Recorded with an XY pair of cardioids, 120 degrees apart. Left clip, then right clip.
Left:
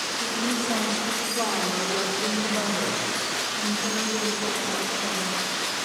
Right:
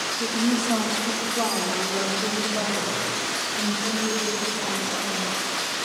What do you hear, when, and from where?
0.2 s a woman speaking: 30° right, 1.7 m; by 5.4 s 25° left, 6 m